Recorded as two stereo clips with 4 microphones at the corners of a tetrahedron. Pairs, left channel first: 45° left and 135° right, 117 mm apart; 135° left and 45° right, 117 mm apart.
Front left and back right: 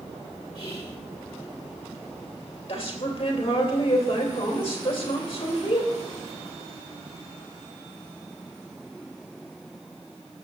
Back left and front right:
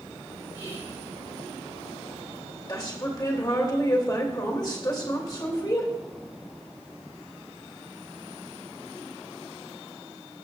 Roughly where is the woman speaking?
Left.